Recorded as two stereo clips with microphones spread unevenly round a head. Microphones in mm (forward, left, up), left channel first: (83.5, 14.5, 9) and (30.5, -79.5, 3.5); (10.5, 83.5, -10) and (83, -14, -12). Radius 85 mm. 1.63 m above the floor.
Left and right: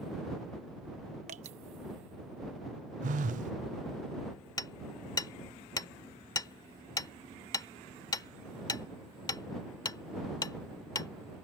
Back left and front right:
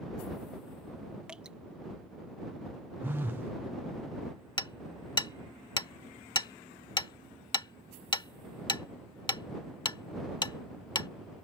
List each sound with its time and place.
1.3 s dripping: 135° right
3.0 s a phone buzzing: 135° right
4.6 s hammering: 95° left